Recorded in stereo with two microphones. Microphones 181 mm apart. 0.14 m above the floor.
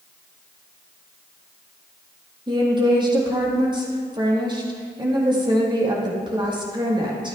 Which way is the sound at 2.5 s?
25° right (ahead or behind).